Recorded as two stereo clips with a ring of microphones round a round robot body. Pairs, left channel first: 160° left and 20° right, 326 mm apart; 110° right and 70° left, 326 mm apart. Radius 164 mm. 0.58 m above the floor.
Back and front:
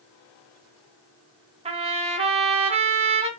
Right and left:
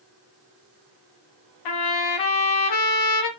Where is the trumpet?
95° right, 1.9 m.